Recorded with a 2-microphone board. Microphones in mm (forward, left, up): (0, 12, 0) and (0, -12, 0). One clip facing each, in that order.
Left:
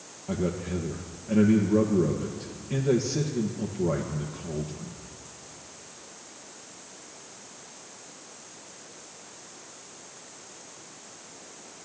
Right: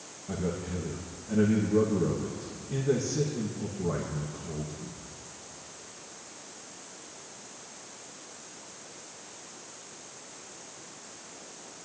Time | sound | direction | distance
0.3 | a man speaking | 55° left (ahead or behind) | 1.8 m